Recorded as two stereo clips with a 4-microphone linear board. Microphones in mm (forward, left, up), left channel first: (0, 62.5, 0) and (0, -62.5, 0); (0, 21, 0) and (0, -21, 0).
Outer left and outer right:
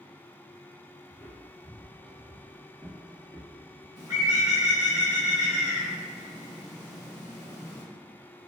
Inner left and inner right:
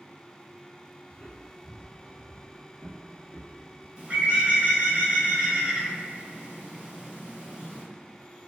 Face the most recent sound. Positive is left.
turn(degrees=-35)  # may be behind; listen again after turning